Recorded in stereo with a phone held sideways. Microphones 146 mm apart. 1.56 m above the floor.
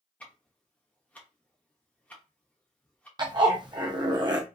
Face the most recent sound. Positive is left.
turn(degrees=-30)  # may be behind; listen again after turning